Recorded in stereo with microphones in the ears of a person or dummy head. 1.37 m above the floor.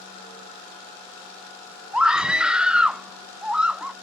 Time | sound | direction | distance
1.9 | a scream | centre (ahead or behind) | ?